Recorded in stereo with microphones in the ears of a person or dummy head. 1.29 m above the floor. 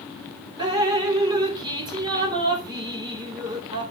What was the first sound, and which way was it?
Dripping, 20° right (ahead or behind).